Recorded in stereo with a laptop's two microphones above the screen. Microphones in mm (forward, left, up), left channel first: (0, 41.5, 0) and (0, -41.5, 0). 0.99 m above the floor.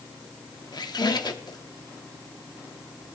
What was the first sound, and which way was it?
A squeak, 60° left (ahead or behind).